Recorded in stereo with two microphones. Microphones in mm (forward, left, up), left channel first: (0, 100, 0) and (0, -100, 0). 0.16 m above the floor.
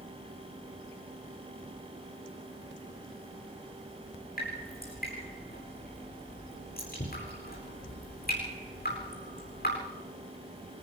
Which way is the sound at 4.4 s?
45° left (ahead or behind).